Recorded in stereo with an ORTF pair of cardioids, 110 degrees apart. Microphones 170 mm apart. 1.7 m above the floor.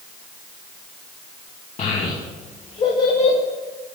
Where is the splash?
I don't hear a splash.